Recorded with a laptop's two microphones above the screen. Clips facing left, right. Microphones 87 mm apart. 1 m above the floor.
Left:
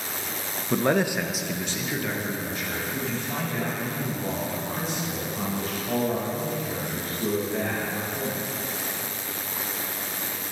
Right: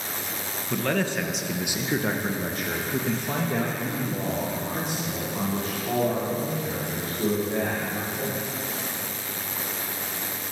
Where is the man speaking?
25° left (ahead or behind), 1.0 m; by 8.4 s 70° right (ahead or behind), 4.5 m.